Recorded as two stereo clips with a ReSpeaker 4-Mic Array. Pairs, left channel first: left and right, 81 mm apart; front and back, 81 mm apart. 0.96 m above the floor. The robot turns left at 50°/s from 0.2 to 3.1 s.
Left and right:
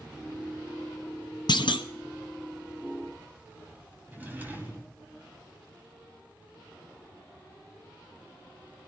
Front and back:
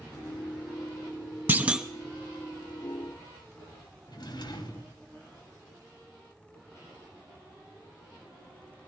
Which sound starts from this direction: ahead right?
A drawer, at 4.1 s.